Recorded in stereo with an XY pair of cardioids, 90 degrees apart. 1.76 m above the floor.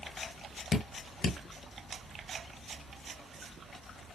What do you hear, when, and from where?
0.7 s dripping: 55° left, 1.6 m